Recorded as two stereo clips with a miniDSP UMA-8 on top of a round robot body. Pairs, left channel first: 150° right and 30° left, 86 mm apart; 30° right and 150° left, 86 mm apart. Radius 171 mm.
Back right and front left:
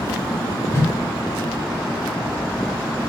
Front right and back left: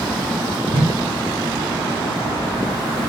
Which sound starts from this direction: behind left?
A whoosh, at 0.7 s.